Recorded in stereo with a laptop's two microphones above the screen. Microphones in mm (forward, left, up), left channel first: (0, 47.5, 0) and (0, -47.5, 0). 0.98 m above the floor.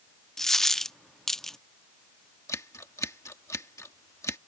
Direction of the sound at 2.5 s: 35° left (ahead or behind).